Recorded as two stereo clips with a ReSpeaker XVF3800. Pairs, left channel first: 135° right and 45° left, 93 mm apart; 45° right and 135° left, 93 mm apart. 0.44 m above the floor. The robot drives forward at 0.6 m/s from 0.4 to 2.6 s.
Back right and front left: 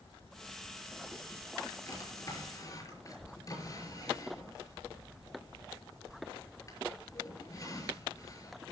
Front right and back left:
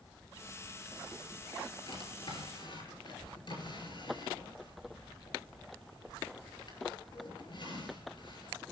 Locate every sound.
1.9 s a drawer: 75° right, 6 m; by 8.6 s 80° right, 5.5 m